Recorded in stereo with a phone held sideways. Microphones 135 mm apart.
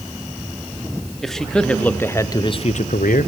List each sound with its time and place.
1.2 s a man speaking: centre (ahead or behind), 2 m; by 3.3 s 70° left (ahead or behind), 0.8 m